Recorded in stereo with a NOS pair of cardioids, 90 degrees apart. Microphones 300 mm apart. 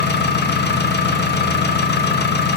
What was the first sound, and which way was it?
An engine running, 35° left.